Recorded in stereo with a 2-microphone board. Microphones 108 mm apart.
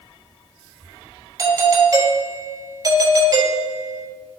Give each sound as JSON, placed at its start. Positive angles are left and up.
{"t": 1.4, "sound": "a doorbell", "side_deg": -30, "distance_m": 3.0}